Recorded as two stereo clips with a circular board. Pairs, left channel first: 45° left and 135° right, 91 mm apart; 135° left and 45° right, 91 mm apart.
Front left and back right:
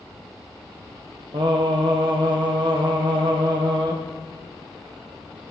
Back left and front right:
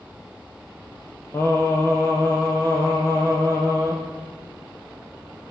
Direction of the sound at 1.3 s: 165° right.